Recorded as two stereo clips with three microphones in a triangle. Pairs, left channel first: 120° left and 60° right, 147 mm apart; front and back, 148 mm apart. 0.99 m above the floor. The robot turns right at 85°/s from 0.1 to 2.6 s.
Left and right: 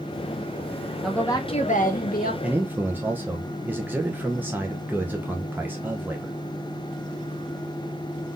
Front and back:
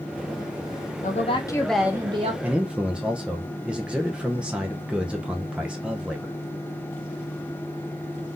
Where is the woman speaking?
30° left, 1.1 m; by 2.3 s 140° left, 1.1 m.